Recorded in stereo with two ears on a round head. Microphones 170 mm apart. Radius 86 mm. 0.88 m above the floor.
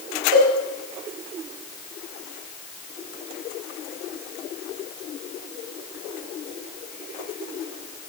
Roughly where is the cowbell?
Right.